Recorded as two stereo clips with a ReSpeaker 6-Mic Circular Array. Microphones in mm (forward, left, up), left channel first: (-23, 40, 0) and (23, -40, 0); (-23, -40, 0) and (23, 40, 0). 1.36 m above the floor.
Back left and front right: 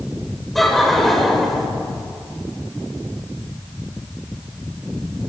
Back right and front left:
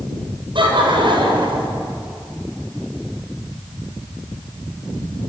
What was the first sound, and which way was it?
Laughter, 30° left.